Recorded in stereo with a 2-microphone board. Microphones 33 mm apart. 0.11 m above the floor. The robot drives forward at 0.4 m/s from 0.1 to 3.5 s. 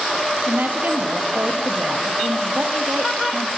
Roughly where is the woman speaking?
Right.